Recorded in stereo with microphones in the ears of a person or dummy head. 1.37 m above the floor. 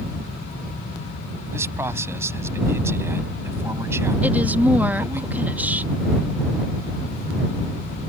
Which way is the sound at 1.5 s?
10° right (ahead or behind).